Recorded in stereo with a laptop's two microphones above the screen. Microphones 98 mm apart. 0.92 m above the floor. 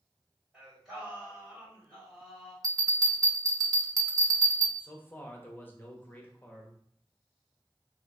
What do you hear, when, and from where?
0.5 s singing: 5° right (ahead or behind), 1.9 m
2.6 s a bell: 40° right (ahead or behind), 0.6 m
4.8 s a man speaking: 20° left (ahead or behind), 0.7 m